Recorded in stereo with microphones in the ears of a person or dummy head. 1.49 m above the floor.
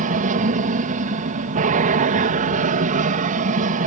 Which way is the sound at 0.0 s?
40° right (ahead or behind).